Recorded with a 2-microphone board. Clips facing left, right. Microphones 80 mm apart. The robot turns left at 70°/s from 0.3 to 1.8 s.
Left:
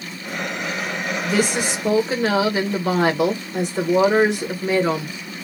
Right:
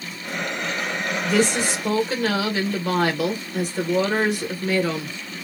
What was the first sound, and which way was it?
A woman speaking, straight behind.